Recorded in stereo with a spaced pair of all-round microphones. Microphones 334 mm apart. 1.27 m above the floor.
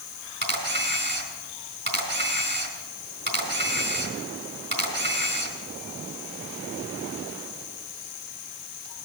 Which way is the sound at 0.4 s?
35° right (ahead or behind).